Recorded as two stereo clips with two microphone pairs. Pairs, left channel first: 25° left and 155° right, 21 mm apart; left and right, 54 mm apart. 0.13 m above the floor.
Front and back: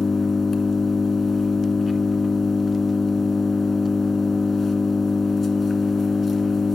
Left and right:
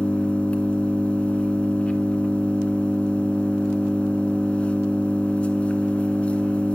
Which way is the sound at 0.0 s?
80° left.